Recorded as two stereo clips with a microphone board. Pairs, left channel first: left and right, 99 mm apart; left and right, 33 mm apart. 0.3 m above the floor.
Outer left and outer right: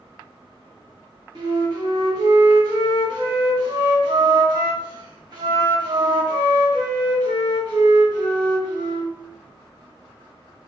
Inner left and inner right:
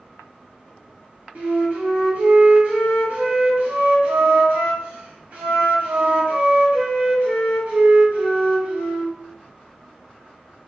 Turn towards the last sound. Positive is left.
turn(degrees=-50)  # may be behind; listen again after turning